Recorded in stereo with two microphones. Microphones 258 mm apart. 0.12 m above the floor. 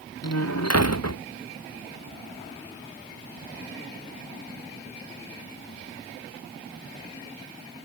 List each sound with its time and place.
0.2 s a door slam: 80° left